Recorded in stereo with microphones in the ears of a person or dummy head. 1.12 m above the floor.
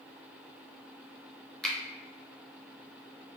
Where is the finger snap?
5° left (ahead or behind), 0.6 m.